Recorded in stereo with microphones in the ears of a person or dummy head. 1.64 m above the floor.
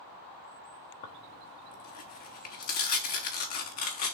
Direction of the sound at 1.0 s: 45° left (ahead or behind).